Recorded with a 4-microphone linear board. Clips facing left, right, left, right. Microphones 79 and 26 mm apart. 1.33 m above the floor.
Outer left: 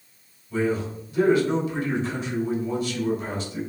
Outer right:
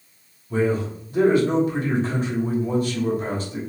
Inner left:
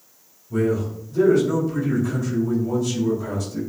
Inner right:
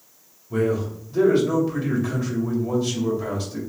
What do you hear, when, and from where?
0.5 s a man speaking: 45° right (ahead or behind), 3 m